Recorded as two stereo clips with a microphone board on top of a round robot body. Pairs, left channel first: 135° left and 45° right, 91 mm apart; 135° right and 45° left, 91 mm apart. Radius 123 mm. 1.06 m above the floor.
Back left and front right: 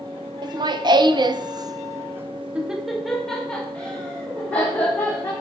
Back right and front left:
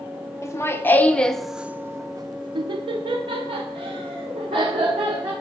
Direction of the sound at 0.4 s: 80° right.